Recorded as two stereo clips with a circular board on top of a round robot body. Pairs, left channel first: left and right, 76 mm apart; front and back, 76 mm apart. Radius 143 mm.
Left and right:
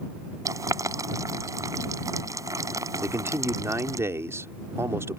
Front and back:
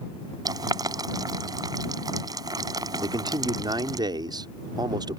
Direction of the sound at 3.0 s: 145° right.